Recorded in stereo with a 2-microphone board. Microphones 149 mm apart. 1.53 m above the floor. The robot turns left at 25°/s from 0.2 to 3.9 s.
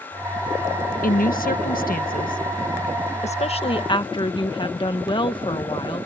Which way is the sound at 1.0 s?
105° left.